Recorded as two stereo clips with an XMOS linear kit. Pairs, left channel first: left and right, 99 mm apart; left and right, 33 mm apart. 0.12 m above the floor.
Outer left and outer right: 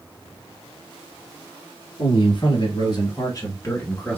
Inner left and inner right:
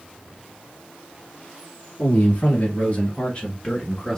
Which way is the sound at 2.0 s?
55° left (ahead or behind).